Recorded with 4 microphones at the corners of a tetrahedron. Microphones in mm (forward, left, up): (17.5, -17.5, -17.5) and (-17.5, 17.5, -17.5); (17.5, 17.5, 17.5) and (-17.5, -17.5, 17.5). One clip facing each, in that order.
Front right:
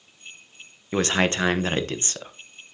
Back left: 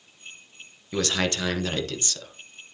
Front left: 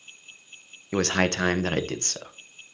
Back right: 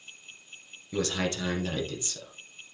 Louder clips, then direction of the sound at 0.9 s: Front right 4 dB, front left 6 dB; 10° left.